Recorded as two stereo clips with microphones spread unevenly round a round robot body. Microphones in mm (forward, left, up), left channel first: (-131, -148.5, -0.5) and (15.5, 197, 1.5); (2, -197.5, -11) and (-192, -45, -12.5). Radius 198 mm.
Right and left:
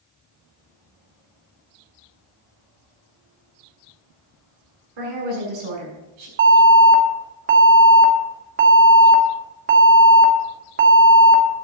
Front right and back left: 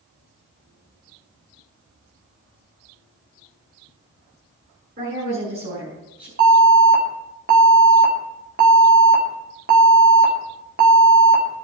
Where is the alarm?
105° left, 2 m.